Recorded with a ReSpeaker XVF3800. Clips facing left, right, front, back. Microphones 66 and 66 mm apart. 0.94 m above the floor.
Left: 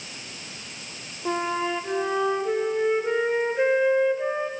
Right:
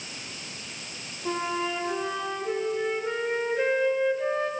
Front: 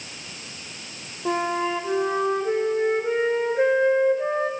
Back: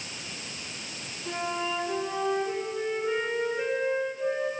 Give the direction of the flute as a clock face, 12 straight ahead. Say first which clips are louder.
Left 3 dB, front 7 dB; 11 o'clock.